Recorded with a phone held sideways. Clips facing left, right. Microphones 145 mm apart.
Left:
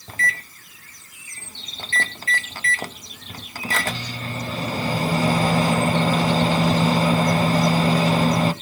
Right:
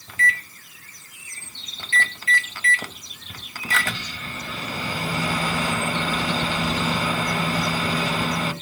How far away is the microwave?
About 0.9 m.